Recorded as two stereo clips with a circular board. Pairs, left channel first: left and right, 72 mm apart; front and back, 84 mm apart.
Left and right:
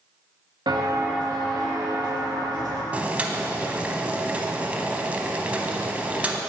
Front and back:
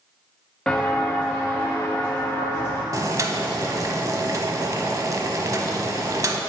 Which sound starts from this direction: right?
Footsteps, at 0.7 s.